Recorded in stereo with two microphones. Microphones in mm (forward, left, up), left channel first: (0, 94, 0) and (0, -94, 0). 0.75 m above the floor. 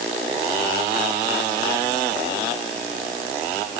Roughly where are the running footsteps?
I don't hear running footsteps.